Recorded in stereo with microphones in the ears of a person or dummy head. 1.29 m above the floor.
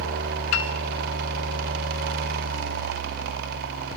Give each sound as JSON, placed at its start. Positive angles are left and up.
{"t": 0.5, "sound": "a piano", "side_deg": 70, "distance_m": 1.4}